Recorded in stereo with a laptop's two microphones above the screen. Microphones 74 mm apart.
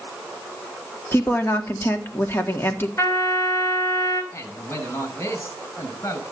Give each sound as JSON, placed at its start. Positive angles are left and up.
{"t": 1.1, "sound": "a woman speaking", "side_deg": 30, "distance_m": 2.5}
{"t": 3.0, "sound": "a trumpet", "side_deg": 40, "distance_m": 4.5}
{"t": 4.3, "sound": "a man speaking", "side_deg": 40, "distance_m": 5.5}